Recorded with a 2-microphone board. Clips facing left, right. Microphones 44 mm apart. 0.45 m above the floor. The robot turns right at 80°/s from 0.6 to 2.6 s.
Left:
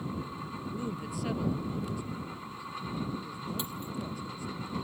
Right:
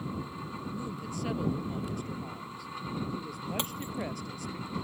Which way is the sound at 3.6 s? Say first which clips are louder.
Right 2 dB; 65° right (ahead or behind).